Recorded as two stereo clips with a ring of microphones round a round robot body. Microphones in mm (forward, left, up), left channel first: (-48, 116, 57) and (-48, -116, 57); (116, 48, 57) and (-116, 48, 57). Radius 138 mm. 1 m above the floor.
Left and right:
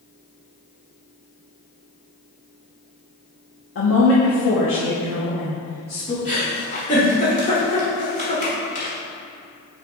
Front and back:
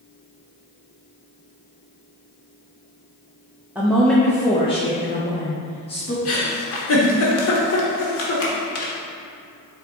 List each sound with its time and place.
3.8 s a woman speaking: 95° left, 1.1 m; by 6.2 s 40° left, 1.7 m
6.2 s a giggle: 25° left, 1.4 m